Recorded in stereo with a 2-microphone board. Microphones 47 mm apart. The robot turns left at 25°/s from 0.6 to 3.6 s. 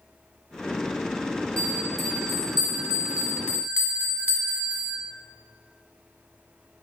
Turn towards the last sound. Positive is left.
turn(degrees=-35)